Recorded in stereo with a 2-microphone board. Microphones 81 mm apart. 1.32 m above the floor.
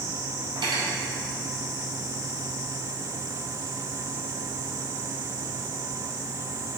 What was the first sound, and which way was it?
Cutlery clinking, 75° right (ahead or behind).